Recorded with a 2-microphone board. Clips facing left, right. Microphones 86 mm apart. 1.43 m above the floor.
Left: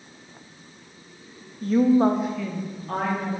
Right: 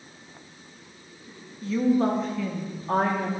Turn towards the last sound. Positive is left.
turn(degrees=-30)  # may be behind; listen again after turning